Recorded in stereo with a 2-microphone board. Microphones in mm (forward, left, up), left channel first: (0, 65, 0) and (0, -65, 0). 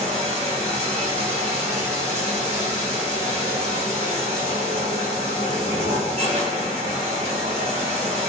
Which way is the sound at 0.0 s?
55° right (ahead or behind).